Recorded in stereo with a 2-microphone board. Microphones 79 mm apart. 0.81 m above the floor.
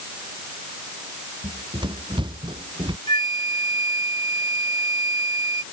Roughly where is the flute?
Left.